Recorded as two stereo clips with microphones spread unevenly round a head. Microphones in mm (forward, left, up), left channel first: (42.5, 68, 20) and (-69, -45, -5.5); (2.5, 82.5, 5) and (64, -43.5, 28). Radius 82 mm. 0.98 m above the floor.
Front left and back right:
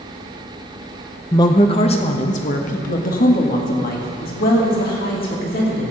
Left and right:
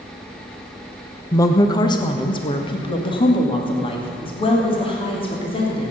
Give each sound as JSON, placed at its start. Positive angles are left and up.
{"t": 1.3, "sound": "a woman speaking", "azimuth_deg": 110, "distance_m": 0.8}